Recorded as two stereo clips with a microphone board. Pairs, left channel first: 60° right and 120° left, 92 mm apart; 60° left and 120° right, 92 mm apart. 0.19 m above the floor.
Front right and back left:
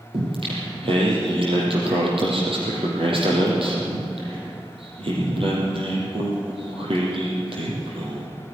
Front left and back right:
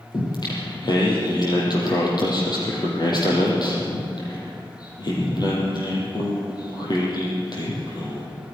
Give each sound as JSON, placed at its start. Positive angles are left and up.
{"t": 0.1, "sound": "singing", "azimuth_deg": 100, "distance_m": 5.0}